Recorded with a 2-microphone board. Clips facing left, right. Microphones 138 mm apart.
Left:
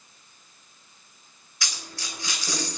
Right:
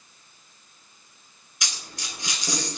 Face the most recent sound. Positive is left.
turn(degrees=-20)  # may be behind; listen again after turning